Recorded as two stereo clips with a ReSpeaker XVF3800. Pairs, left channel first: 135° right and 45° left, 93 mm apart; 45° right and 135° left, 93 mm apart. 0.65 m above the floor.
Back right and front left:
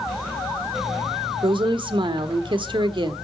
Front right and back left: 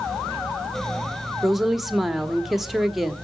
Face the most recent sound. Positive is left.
turn(degrees=45)